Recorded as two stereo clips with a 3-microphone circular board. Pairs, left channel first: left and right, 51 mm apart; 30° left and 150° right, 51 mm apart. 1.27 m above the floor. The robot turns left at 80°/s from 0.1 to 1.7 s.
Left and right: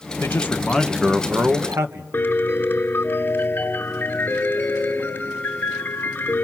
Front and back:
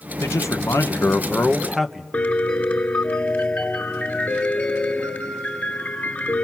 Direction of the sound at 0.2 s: 55° left.